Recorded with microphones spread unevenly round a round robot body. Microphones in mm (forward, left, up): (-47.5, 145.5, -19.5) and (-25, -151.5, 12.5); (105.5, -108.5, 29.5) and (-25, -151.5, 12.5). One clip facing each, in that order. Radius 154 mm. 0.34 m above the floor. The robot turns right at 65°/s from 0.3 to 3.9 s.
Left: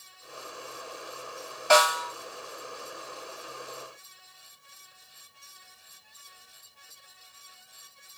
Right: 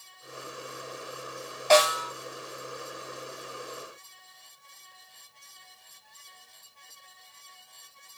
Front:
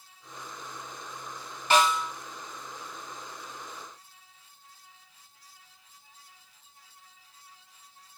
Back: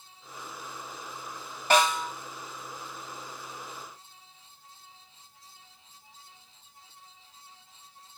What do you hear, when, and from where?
1.7 s a snare drum: 165° left, 2 m; by 2.1 s 165° right, 2 m